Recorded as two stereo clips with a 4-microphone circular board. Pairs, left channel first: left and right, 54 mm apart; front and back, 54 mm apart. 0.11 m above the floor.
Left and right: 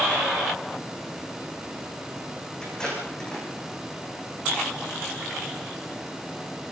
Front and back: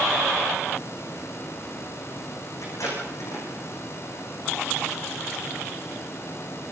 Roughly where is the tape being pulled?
Ahead.